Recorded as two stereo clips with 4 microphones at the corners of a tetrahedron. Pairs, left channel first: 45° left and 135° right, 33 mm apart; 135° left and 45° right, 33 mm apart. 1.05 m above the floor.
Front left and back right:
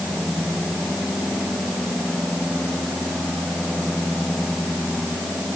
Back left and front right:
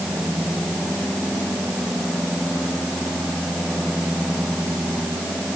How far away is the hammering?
No hammering in this recording.